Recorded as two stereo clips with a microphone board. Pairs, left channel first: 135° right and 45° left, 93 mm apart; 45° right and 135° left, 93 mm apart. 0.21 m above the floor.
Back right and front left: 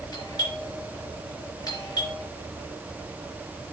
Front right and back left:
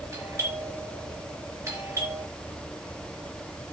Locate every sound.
0.1 s a doorbell: 170° right, 4 m